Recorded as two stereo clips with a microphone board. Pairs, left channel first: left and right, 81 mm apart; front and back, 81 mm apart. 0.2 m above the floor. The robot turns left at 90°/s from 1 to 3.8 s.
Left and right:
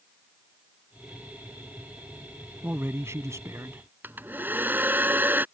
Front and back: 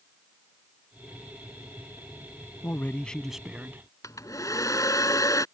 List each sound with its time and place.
2.6 s a man speaking: 30° right; by 3.8 s 140° right
4.0 s a hair dryer: 30° right